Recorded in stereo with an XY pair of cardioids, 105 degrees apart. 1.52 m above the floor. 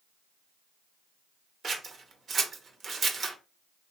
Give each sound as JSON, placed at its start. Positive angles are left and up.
{"t": 1.6, "sound": "scissors", "azimuth_deg": -45, "distance_m": 0.8}